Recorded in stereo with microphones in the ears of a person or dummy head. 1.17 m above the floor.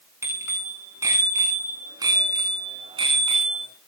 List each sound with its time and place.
0.2 s a bicycle bell: 10° right (ahead or behind), 8.5 m; by 3.7 s 30° right (ahead or behind), 8.5 m